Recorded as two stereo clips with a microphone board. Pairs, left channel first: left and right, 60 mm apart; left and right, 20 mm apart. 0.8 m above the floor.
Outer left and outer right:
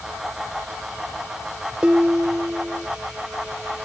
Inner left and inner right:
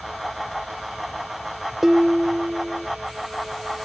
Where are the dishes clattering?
20° right (ahead or behind), 0.6 m.